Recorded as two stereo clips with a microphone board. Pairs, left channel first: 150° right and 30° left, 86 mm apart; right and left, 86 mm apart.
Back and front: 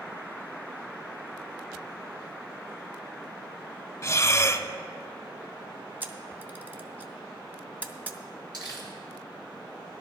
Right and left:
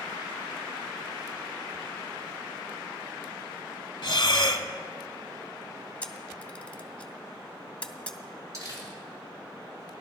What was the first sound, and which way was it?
Breathing, 100° right.